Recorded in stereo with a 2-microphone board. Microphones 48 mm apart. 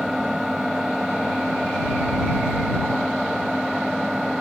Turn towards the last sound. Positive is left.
turn(degrees=-5)  # may be behind; listen again after turning